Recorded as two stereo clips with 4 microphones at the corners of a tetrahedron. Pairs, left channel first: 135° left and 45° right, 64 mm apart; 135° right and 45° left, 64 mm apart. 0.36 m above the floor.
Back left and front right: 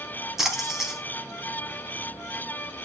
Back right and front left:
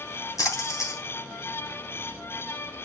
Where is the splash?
130° right, 3 m.